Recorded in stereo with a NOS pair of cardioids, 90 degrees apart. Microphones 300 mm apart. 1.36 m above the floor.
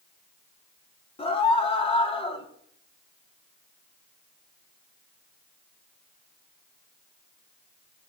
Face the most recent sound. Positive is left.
turn(degrees=20)